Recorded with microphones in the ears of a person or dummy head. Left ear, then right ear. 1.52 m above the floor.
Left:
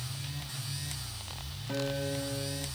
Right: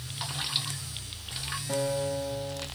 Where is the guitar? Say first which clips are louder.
Right 4 dB; 15° right (ahead or behind), 1.0 m.